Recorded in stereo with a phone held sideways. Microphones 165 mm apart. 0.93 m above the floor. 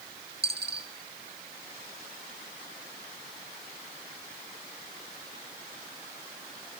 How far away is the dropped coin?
About 2 m.